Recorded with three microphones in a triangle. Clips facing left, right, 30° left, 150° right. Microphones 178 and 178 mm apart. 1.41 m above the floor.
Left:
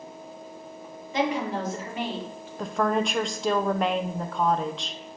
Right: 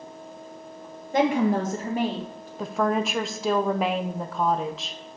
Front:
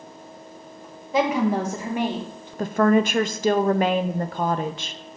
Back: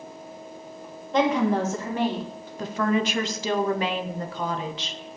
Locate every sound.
1.1 s a woman speaking: 55° right, 1.9 m; by 2.5 s 40° right, 2.5 m
2.6 s a woman speaking: 5° right, 0.7 m